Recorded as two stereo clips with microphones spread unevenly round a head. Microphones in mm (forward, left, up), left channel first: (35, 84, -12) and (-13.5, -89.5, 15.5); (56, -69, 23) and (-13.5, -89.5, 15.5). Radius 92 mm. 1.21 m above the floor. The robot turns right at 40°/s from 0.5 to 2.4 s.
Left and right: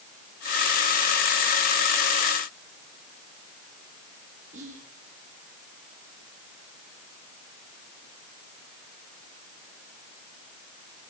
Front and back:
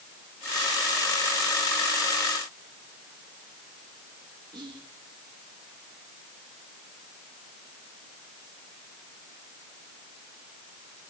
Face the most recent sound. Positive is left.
turn(degrees=-155)